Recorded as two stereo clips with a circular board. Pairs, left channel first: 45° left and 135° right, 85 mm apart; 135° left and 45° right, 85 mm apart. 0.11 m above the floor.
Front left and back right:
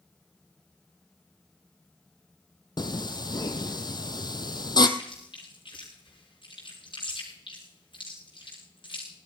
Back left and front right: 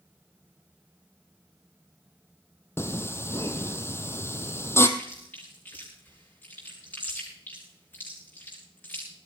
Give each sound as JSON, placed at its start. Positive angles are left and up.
{"t": 2.8, "sound": "singing", "azimuth_deg": 80, "distance_m": 1.2}
{"t": 5.0, "sound": "chewing", "azimuth_deg": 65, "distance_m": 7.5}